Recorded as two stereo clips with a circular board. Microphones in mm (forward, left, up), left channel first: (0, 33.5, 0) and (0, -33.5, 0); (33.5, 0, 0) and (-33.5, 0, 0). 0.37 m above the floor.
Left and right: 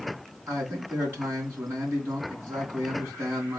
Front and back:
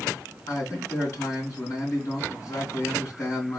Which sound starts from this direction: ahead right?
A man speaking, at 0.5 s.